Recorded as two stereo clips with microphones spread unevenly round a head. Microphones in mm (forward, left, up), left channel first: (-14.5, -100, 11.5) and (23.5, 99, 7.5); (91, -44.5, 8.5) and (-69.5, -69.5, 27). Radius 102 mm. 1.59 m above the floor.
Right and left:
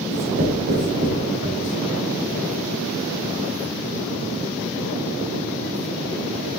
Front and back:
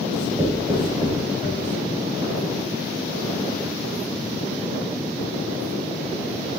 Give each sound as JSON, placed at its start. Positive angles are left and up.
{"t": 0.1, "sound": "writing", "azimuth_deg": 110, "distance_m": 3.0}